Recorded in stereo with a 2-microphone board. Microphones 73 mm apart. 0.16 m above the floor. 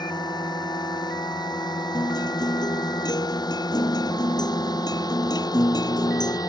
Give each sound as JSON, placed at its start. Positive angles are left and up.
{"t": 0.0, "sound": "a drone", "side_deg": 75}
{"t": 1.9, "sound": "a guitar", "side_deg": 70}